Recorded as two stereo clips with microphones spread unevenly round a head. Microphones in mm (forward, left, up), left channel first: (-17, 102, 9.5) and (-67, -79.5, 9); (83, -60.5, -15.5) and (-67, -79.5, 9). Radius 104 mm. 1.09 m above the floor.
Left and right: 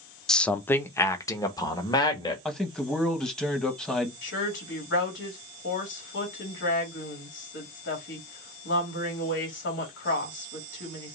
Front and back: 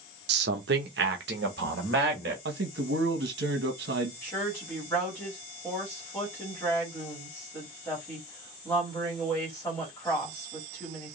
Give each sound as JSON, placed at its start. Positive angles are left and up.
{"t": 0.3, "sound": "a man speaking", "azimuth_deg": 160, "distance_m": 0.6}
{"t": 2.5, "sound": "a man speaking", "azimuth_deg": 160, "distance_m": 1.3}
{"t": 4.2, "sound": "a woman speaking", "azimuth_deg": 90, "distance_m": 2.5}